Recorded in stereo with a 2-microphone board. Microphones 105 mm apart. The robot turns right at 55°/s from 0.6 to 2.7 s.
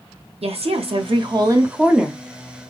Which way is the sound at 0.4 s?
85° right.